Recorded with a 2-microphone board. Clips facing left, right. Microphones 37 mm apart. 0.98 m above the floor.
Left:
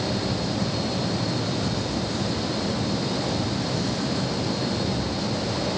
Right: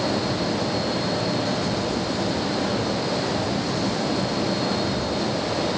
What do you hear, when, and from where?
Only background noise.